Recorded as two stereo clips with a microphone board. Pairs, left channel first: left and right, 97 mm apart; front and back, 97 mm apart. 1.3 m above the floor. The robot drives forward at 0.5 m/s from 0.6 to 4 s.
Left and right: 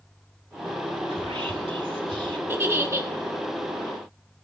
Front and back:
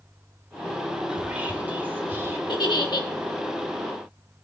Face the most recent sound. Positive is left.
turn(degrees=-60)